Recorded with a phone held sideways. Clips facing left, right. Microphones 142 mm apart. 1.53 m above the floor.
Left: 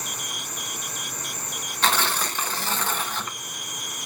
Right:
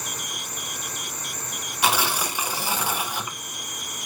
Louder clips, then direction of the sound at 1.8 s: Right 1 dB; 10° right (ahead or behind).